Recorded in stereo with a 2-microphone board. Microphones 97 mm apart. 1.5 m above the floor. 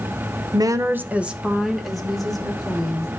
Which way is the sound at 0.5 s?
45° right (ahead or behind).